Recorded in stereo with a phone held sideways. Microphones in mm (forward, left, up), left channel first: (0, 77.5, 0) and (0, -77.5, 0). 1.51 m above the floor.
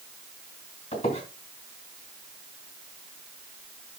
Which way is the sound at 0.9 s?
40° left (ahead or behind).